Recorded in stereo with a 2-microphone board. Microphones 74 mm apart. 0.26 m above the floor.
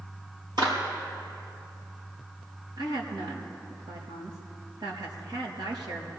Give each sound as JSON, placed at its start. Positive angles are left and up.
{"t": 0.6, "sound": "a clap", "side_deg": -75, "distance_m": 4.0}
{"t": 2.8, "sound": "a woman speaking", "side_deg": -70, "distance_m": 4.0}